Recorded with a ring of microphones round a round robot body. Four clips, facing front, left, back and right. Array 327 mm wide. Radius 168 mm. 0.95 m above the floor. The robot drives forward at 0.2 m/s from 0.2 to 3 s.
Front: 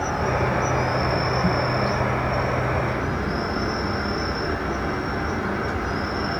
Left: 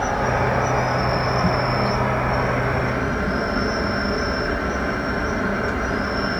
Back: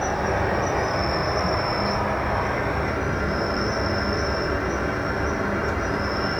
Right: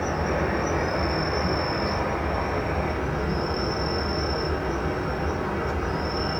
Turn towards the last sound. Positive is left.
turn(degrees=105)